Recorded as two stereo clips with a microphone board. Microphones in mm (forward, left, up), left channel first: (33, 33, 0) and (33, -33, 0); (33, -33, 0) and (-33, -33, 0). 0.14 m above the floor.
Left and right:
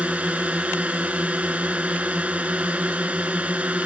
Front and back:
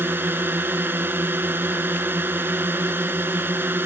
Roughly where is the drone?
Behind right.